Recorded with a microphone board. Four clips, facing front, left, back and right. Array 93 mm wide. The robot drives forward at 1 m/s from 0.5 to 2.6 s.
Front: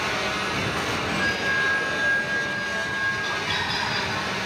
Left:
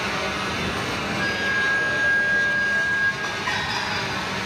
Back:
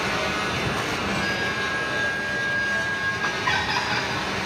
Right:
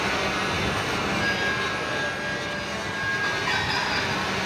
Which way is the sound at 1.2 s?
50° left.